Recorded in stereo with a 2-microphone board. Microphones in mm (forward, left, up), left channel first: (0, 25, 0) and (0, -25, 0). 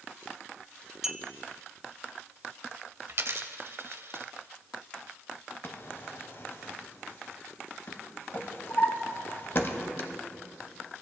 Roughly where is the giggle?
No giggle in this recording.